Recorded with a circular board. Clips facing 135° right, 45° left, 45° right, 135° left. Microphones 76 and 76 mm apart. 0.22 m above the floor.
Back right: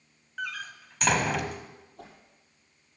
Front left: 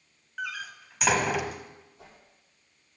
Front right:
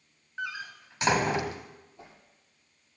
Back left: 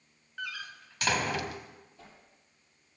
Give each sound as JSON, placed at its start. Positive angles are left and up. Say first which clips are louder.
{"t": 0.4, "sound": "a door slam", "louder": "even, front right 4 dB", "azimuth_deg": -35, "distance_m": 0.9}
{"t": 2.0, "sound": "a whoosh", "louder": "back right 4 dB, front right 5 dB", "azimuth_deg": -115, "distance_m": 6.5}